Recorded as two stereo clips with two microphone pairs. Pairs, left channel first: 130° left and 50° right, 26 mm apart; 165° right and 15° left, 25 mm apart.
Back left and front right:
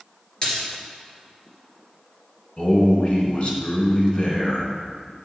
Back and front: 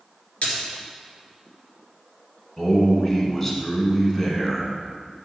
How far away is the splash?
About 2 m.